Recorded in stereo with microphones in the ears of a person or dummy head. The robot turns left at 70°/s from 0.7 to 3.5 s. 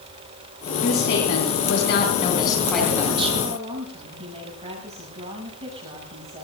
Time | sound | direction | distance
0.8 | a woman speaking | 135° left | 8 m
3.4 | a woman speaking | 30° right (ahead or behind) | 8 m